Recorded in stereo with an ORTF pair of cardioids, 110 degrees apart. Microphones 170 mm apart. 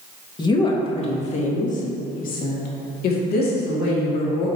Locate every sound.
0.4 s a woman speaking: 25° left, 1.5 m; by 4.5 s 80° left, 2.5 m